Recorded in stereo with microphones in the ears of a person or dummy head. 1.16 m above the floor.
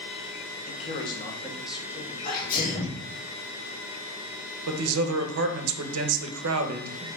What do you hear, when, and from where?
0.7 s a man speaking: 40° left (ahead or behind), 1.0 m; by 3.0 s 40° right (ahead or behind), 1.8 m
2.2 s a sneeze: 40° left (ahead or behind), 1.6 m
4.7 s a man speaking: 75° right (ahead or behind), 0.7 m